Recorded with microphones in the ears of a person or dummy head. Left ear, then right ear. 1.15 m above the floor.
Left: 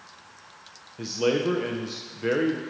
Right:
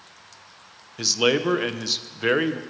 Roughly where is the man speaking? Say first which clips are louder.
Right 4 dB; right.